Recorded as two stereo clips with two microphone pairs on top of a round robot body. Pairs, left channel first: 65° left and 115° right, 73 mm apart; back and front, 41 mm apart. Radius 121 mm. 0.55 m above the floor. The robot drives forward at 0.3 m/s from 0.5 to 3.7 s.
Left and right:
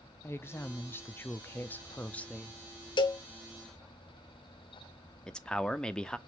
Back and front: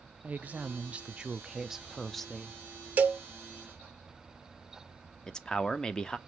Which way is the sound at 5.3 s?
115° left.